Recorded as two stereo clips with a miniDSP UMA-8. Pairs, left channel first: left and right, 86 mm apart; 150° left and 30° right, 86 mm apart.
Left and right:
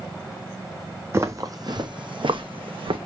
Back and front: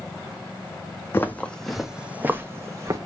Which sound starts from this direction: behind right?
Footsteps, at 1.1 s.